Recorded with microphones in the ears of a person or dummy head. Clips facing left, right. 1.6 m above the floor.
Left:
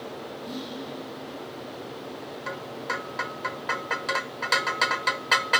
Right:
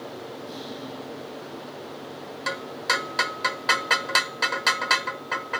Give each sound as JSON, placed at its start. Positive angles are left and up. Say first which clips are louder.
{"t": 0.4, "sound": "whispering", "louder": "left 1 dB", "side_deg": 65, "distance_m": 2.0}